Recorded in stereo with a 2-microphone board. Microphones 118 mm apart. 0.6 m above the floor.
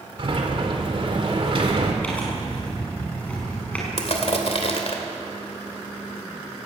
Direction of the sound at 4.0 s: 60° left (ahead or behind).